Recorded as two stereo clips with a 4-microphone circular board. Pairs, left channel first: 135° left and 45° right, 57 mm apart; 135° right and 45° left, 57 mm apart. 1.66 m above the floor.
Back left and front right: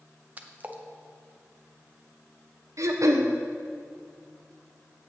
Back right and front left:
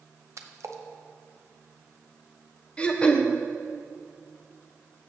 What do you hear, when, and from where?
0.4 s a splash: 15° left, 0.5 m
2.8 s throat clearing: 65° right, 0.6 m